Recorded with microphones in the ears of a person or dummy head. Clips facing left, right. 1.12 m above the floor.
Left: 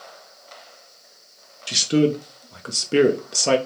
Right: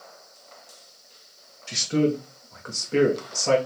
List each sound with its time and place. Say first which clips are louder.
1.7 s a man speaking: left 4 dB; 40° left (ahead or behind), 0.6 m